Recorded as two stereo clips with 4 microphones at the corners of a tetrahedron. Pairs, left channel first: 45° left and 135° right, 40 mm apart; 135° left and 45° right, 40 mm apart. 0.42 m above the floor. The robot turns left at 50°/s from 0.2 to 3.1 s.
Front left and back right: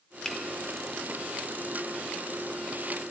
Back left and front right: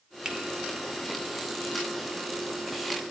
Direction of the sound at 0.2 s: Straight ahead.